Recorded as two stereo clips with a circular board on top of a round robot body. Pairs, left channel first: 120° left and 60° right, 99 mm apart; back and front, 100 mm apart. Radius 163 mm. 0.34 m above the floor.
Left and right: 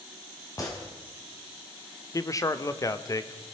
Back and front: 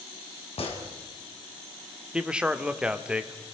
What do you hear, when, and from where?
0.6 s a gunshot: 175° left, 3.5 m
2.1 s a man speaking: 80° left, 1.4 m